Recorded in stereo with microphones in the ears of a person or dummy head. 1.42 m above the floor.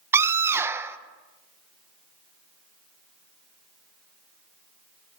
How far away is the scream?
About 1.2 m.